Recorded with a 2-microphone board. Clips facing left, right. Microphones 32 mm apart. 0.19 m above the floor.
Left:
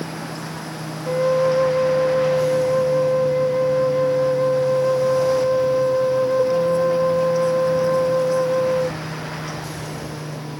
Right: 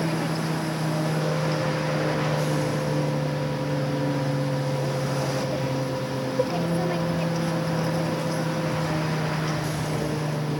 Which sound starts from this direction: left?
A flute, at 1.1 s.